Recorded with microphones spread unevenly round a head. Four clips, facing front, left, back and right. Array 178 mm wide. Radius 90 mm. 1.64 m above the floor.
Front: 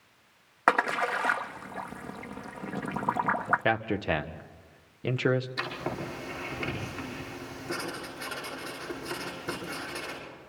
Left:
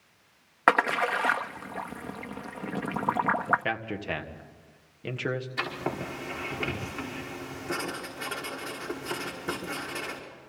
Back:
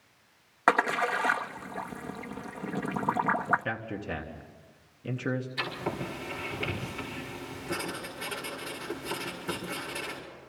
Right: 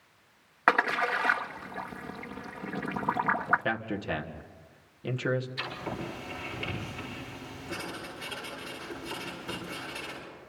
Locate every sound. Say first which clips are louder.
0.7 s a splash: left 2 dB, even; 85° left, 1.0 m
3.6 s a man speaking: even, front 7 dB; 10° left, 1.6 m
5.6 s writing: left 4 dB, even; 70° left, 5.5 m